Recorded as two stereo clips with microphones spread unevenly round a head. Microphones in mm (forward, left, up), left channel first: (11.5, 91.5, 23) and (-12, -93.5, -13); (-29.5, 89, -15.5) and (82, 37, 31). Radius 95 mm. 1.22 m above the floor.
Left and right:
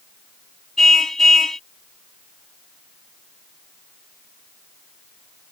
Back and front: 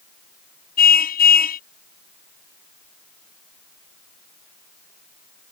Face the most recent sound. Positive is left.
turn(degrees=170)